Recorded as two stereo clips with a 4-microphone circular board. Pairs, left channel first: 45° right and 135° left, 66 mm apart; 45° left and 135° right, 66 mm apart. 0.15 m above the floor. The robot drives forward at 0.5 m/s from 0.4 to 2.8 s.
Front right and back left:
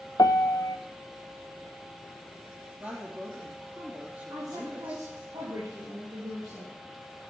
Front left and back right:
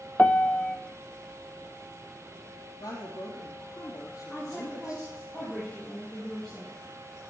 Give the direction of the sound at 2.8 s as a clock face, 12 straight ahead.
9 o'clock.